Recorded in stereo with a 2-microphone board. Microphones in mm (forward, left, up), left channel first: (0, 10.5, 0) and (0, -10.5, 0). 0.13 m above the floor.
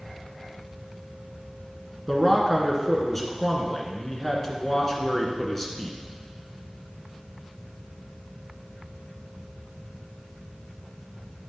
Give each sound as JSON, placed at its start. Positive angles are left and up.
{"t": 2.1, "sound": "a man speaking", "side_deg": 15, "distance_m": 1.4}